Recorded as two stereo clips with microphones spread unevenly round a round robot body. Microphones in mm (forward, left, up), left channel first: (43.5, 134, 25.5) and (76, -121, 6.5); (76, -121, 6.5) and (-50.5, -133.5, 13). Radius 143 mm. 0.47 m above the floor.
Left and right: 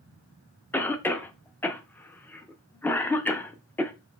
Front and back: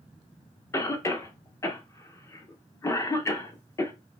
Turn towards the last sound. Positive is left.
turn(degrees=15)